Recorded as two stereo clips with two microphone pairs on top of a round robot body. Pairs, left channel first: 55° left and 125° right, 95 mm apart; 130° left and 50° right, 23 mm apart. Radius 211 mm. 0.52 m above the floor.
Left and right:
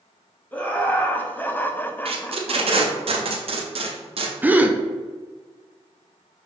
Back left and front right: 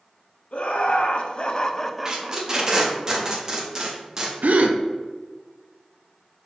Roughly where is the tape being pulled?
Behind right.